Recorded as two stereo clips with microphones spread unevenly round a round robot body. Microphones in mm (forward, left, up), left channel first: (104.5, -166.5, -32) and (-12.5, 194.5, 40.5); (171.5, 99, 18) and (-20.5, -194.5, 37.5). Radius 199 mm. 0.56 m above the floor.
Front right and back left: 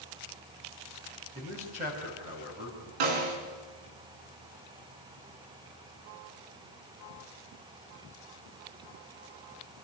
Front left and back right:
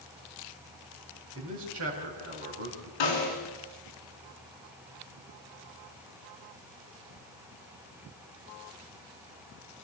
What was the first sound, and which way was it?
A man speaking, 175° right.